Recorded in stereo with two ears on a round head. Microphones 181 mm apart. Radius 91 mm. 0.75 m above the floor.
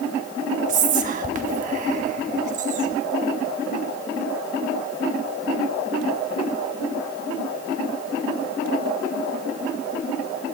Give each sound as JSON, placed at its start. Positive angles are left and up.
{"t": 0.7, "sound": "whispering", "side_deg": -40, "distance_m": 1.1}